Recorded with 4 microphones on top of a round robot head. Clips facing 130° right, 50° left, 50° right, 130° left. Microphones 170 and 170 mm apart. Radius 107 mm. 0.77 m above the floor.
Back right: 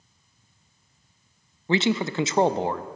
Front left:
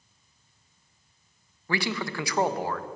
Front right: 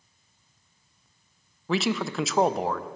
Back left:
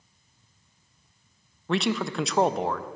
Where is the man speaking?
135° right, 0.5 m.